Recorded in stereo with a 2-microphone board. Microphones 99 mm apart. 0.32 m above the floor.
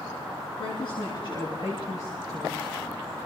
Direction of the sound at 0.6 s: 55° left (ahead or behind).